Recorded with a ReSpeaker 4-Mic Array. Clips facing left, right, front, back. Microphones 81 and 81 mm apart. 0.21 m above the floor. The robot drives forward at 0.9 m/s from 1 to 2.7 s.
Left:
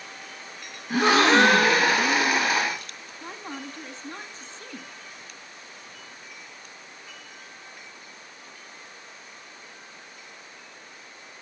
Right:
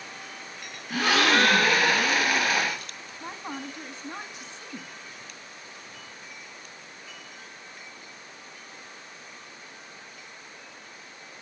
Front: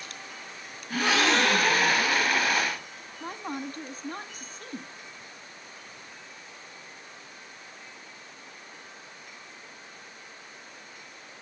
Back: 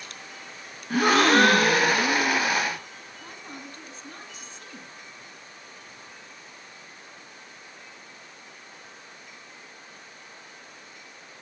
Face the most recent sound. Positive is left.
turn(degrees=-20)